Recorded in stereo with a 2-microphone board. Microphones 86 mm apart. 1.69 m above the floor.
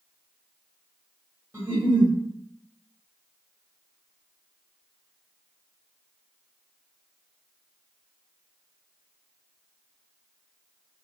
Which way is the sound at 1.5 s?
30° right (ahead or behind).